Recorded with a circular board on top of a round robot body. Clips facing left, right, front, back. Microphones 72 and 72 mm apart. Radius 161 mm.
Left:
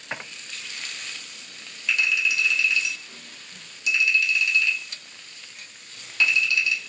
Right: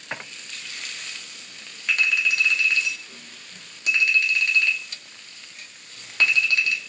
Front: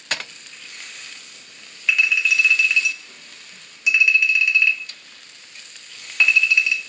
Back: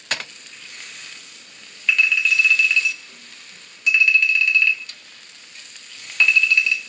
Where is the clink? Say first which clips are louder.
Right 1 dB, even; 75° right, 1.0 m.